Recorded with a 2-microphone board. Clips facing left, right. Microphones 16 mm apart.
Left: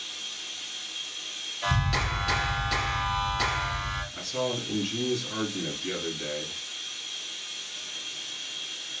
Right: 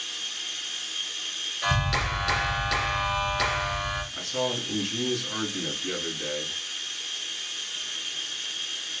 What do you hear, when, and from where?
0.0 s running water: 60° right (ahead or behind), 1.1 m
1.6 s a clap: 35° right (ahead or behind), 3 m
4.1 s a man speaking: 25° right (ahead or behind), 2 m